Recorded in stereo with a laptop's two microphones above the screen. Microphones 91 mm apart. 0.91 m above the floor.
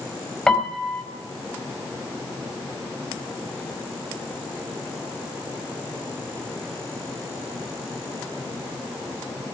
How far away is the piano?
About 2.5 m.